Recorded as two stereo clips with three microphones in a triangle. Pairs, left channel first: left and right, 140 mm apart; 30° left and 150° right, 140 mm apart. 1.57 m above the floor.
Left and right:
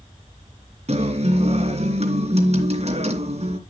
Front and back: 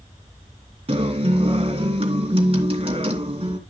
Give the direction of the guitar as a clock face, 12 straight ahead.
4 o'clock.